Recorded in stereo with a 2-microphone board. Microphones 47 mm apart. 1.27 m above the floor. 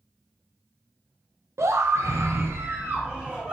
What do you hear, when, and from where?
1.6 s a scream: 80° right, 0.8 m; by 3.5 s 20° right (ahead or behind), 0.8 m